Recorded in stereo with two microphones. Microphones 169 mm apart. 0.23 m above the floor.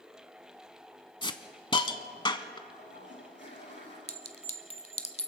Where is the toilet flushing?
80° left, 7.5 m.